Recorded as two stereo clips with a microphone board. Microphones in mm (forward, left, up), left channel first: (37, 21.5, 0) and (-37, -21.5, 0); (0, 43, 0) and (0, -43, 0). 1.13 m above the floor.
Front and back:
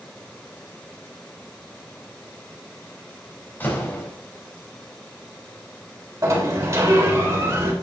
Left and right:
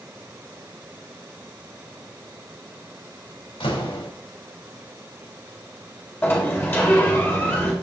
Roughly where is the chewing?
No chewing in this recording.